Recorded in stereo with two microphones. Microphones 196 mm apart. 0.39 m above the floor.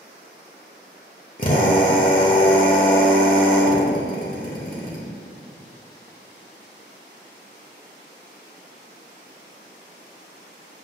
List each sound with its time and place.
1.4 s a drill: 45° left (ahead or behind), 1.4 m